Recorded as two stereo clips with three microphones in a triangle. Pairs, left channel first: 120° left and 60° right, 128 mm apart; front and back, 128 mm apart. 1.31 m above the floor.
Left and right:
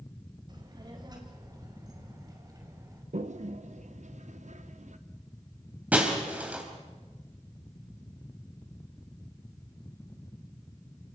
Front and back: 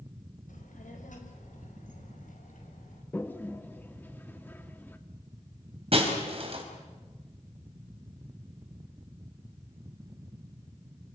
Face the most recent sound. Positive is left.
turn(degrees=-140)